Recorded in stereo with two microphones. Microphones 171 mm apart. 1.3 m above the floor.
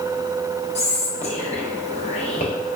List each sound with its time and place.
0.8 s whispering: 40° left (ahead or behind), 1.0 m